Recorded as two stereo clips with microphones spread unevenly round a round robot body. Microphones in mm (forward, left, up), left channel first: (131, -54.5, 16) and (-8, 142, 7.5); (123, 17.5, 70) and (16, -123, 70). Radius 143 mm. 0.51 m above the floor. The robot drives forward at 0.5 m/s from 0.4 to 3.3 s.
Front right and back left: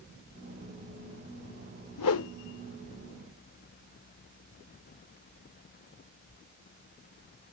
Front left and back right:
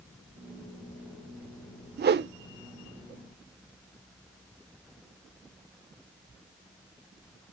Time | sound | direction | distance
2.0 | a whoosh | 90° right | 0.6 m